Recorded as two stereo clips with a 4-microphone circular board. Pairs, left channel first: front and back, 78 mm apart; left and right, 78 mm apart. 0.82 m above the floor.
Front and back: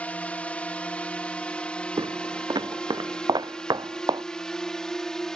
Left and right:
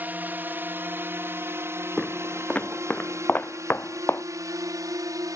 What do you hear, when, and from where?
0.0 s a drone: 50° right; by 5.4 s 80° right
2.0 s footsteps: 170° left; by 4.2 s 150° left